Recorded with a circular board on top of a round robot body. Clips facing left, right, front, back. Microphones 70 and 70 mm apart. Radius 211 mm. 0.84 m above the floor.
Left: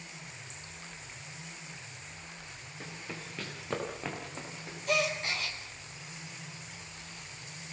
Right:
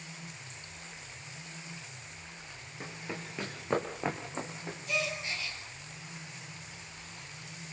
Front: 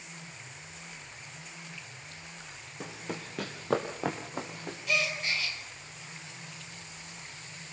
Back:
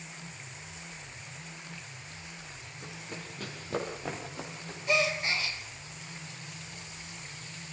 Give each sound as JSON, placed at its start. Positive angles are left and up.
{"t": 2.8, "sound": "running footsteps", "azimuth_deg": -15, "distance_m": 4.0}
{"t": 4.9, "sound": "a gasp", "azimuth_deg": 120, "distance_m": 4.5}